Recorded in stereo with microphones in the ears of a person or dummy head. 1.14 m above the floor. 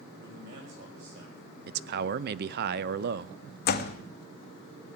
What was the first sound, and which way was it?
A man speaking, 65° right (ahead or behind).